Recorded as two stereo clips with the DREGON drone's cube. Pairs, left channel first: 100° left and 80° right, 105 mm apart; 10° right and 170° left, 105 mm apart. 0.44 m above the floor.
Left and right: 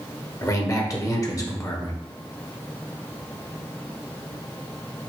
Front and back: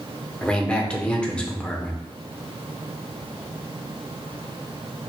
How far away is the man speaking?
About 0.9 m.